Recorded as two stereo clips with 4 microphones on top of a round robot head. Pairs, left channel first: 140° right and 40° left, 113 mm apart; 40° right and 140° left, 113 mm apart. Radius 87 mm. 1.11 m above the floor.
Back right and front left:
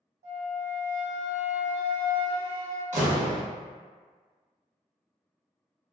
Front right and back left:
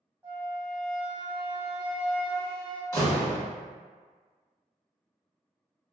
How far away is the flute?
About 0.9 m.